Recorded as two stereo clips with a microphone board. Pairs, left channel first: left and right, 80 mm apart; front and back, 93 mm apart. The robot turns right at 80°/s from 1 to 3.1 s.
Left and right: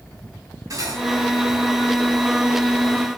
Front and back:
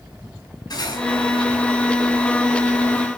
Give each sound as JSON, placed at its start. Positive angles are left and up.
{"t": 0.7, "sound": "cutlery clinking", "azimuth_deg": -45, "distance_m": 4.0}